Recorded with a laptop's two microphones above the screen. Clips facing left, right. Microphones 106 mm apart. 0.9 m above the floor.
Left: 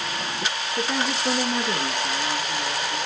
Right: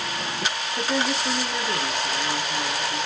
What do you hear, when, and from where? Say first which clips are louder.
0.8 s a woman speaking: right 1 dB; 10° left (ahead or behind), 0.6 m; by 3.0 s 65° left (ahead or behind), 1.5 m